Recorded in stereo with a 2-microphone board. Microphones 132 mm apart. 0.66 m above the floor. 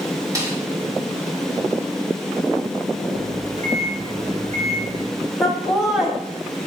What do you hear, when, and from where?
0.3 s a snare drum: 25° right (ahead or behind), 1.8 m
3.1 s a microwave: 70° right (ahead or behind), 3.5 m
5.4 s laughter: 5° right (ahead or behind), 1.5 m